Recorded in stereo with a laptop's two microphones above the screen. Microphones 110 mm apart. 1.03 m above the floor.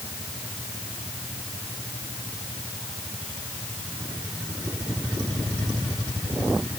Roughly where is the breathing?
No breathing in this recording.